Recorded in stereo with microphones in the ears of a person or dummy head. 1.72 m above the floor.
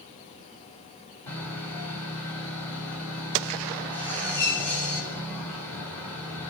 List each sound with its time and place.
1.3 s sawing: 20° left (ahead or behind), 4.5 m